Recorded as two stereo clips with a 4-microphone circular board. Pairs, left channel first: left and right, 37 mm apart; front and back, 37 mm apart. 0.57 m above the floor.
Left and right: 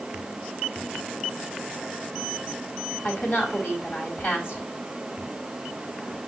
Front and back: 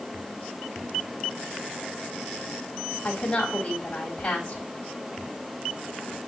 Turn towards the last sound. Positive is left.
turn(degrees=65)